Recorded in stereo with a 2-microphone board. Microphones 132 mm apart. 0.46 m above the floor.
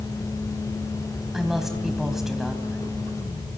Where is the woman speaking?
Centre (ahead or behind), 3 m.